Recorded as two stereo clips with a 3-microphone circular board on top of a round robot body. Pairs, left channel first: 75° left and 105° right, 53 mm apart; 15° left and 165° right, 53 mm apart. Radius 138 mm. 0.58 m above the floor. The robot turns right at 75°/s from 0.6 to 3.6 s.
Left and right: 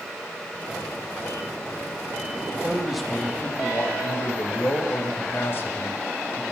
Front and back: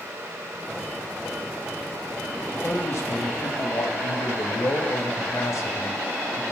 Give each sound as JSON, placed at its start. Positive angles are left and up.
{"t": 2.4, "sound": "a man speaking", "azimuth_deg": -55, "distance_m": 3.0}